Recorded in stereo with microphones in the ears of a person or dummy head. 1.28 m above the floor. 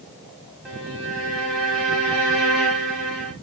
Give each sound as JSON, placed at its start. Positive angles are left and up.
{"t": 0.7, "sound": "a violin", "side_deg": -5, "distance_m": 0.9}